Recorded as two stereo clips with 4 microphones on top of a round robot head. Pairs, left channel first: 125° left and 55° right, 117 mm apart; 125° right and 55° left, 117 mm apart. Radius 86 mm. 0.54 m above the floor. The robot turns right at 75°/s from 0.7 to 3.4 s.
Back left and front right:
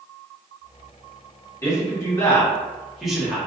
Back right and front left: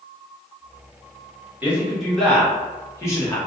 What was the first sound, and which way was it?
A man speaking, 110° left.